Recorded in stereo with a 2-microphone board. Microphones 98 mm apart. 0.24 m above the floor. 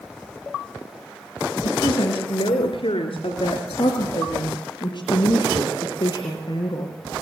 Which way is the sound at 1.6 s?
70° left (ahead or behind).